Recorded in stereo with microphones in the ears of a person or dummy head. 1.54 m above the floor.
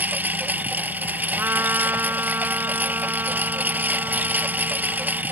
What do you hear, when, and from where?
0.0 s a lawn mower: 15° right (ahead or behind)
1.4 s a trumpet: 20° right (ahead or behind)